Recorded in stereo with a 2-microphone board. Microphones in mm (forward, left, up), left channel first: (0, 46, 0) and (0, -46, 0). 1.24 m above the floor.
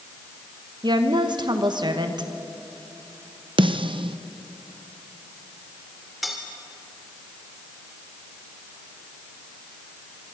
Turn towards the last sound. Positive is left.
turn(degrees=0)  # may be behind; listen again after turning